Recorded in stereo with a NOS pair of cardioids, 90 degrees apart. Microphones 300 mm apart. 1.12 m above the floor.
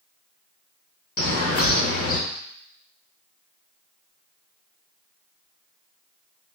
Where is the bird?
50° left, 1.1 m.